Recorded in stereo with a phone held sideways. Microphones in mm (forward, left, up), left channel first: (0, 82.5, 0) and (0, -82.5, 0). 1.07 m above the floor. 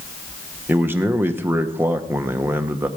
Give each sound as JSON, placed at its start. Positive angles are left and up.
{"t": 0.7, "sound": "a man speaking", "side_deg": -15, "distance_m": 0.9}